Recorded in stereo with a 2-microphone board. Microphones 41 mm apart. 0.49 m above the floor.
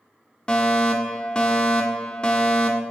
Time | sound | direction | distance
0.5 | a fire alarm | 25° left (ahead or behind) | 1.9 m